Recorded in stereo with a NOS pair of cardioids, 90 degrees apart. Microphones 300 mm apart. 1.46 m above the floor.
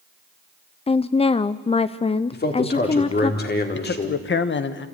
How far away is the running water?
No running water in this recording.